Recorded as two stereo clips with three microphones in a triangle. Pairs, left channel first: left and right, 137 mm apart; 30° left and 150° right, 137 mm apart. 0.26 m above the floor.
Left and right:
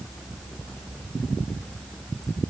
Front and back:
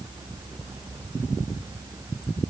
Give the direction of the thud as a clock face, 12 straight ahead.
I don't hear a thud.